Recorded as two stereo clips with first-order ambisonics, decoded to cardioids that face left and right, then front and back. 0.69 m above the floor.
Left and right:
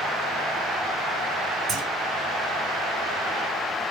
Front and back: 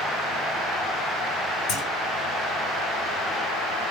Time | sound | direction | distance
1.7 | a clunk | 30° right | 1.7 m